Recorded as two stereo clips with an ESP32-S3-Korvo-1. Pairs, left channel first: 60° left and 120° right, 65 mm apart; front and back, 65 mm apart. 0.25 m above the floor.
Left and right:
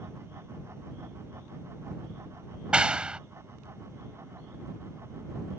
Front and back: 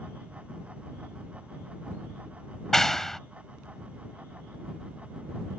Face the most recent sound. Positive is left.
turn(degrees=-75)